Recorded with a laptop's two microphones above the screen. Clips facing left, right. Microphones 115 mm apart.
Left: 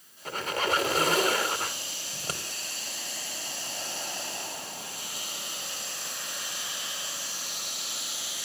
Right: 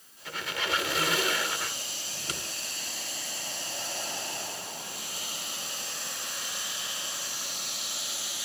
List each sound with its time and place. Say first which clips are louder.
0.2 s a squeak: left 5 dB; 40° left (ahead or behind), 0.9 m
2.1 s scissors: left 2 dB; 40° left (ahead or behind), 2.5 m